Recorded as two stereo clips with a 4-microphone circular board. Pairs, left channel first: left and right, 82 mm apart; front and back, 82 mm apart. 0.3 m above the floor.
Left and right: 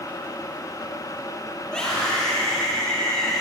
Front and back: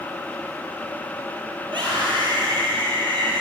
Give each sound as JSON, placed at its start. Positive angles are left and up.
{"t": 1.6, "sound": "a scream", "azimuth_deg": 170, "distance_m": 8.5}